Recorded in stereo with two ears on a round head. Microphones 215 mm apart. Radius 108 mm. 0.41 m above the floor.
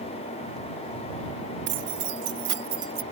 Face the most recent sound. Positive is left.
turn(degrees=-25)  # may be behind; listen again after turning